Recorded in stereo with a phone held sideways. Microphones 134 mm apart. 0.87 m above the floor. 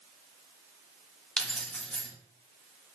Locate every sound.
1.4 s keys jangling: 5° left (ahead or behind), 0.7 m